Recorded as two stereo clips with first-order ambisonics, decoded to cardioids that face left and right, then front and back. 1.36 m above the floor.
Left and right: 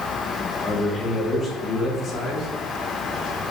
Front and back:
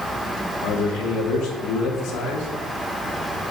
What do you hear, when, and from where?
0.6 s a man speaking: 25° left, 1.8 m